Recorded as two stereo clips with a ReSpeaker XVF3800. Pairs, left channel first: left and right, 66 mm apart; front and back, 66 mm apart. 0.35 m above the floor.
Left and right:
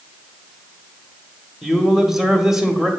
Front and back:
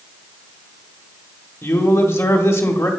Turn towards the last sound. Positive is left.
turn(degrees=-10)